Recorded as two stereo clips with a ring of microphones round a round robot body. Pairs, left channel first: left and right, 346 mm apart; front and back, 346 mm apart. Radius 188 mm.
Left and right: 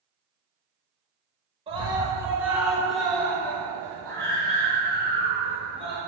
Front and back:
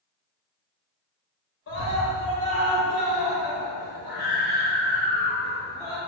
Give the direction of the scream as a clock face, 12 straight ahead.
1 o'clock.